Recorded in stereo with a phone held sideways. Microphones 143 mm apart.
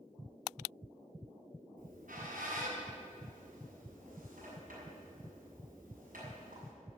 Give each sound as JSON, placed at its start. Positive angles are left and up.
{"t": 1.8, "sound": "a squeak", "side_deg": -70, "distance_m": 7.0}